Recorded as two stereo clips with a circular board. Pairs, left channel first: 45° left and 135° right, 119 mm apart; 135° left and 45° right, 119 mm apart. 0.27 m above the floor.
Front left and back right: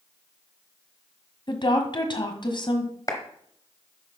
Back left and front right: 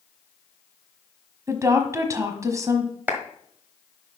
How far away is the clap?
About 1.5 m.